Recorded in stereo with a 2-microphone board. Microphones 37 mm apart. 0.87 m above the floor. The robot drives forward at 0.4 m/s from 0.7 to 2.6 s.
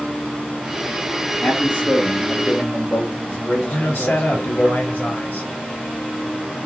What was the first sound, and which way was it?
A man speaking, 70° left (ahead or behind).